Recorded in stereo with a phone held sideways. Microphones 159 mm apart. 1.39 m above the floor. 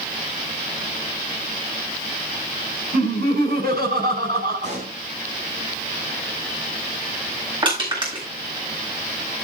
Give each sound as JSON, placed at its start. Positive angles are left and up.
{"t": 2.9, "sound": "laughter", "side_deg": -70, "distance_m": 5.5}
{"t": 4.6, "sound": "a pop", "side_deg": -45, "distance_m": 5.0}
{"t": 7.6, "sound": "crushing", "side_deg": -30, "distance_m": 8.0}